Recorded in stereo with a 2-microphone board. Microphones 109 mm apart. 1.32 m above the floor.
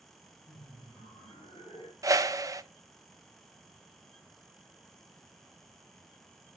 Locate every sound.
0.5 s laughter: 50° left (ahead or behind), 7.5 m; by 1.9 s 55° left (ahead or behind), 5.5 m
2.0 s a whoosh: 35° right (ahead or behind), 0.7 m